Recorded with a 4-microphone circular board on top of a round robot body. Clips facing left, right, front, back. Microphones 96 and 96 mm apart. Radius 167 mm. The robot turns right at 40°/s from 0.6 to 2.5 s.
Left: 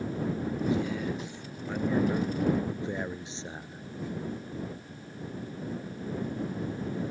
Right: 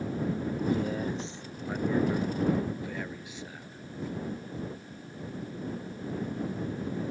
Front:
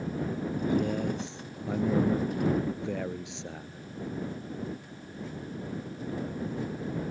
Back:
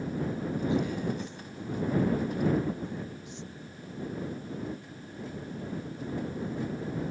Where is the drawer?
No drawer in this recording.